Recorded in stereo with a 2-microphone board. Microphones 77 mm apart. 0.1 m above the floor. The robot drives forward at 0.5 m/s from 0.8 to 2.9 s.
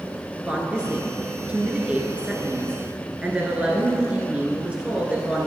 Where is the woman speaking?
15° right (ahead or behind), 1.4 m.